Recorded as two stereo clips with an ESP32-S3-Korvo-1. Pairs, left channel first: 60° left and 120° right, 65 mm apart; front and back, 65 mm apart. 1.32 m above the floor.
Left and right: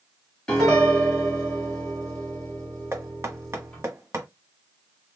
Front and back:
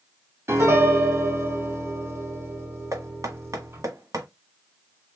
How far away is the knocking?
About 1.3 m.